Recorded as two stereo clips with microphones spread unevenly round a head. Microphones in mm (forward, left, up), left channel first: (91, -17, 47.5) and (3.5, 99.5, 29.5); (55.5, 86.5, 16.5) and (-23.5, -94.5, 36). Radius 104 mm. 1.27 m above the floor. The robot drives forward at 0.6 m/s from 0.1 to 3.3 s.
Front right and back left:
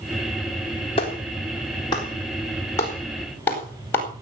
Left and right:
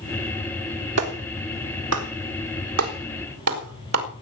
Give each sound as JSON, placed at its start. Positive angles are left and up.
{"t": 1.0, "sound": "a clap", "azimuth_deg": -115, "distance_m": 3.5}